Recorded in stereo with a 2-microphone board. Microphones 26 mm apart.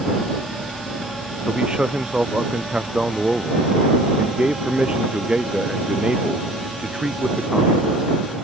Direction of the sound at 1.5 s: 35° right (ahead or behind).